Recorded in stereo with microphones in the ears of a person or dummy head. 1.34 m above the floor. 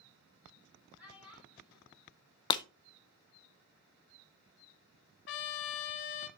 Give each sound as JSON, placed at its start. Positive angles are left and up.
{"t": 1.0, "sound": "a child speaking", "side_deg": -15, "distance_m": 3.0}
{"t": 2.5, "sound": "breaking glass", "side_deg": 25, "distance_m": 0.6}
{"t": 5.3, "sound": "a trumpet", "side_deg": 50, "distance_m": 0.8}